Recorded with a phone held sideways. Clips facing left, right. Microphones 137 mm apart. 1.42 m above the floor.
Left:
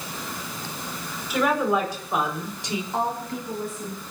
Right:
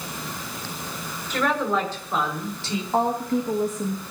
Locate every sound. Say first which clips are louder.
1.3 s a woman speaking: left 2 dB; 10° left (ahead or behind), 5.5 m; by 2.8 s 20° left (ahead or behind), 4 m
2.9 s a woman speaking: right 7 dB; 40° right (ahead or behind), 2.0 m